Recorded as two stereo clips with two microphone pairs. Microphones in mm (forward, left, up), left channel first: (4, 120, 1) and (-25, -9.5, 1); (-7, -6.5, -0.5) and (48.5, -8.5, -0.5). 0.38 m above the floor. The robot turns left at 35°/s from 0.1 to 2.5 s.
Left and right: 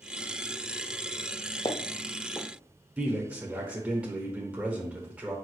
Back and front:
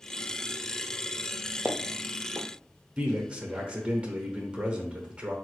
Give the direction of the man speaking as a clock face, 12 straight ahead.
1 o'clock.